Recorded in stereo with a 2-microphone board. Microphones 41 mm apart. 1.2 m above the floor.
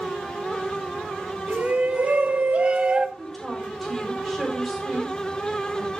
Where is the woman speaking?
5° left (ahead or behind), 4.5 m.